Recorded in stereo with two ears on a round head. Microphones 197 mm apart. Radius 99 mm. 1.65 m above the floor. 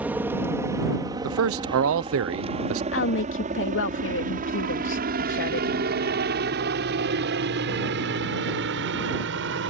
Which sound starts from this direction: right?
A man speaking, at 1.2 s.